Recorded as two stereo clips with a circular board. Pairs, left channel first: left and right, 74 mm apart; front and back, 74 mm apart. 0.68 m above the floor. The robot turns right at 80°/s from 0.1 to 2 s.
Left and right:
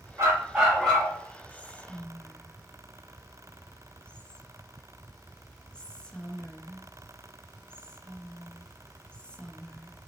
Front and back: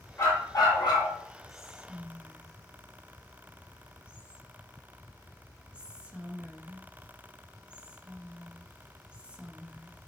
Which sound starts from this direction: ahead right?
A dog barking, at 0.2 s.